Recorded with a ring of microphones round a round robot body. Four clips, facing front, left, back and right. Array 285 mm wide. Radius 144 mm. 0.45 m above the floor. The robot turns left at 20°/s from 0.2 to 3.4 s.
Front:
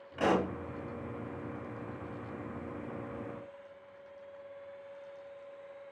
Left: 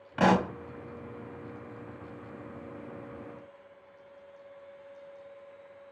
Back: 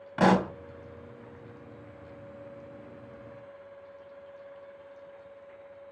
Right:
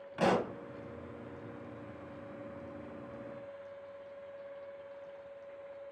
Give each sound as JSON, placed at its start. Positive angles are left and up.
{"t": 0.2, "sound": "a pop", "azimuth_deg": 145, "distance_m": 0.6}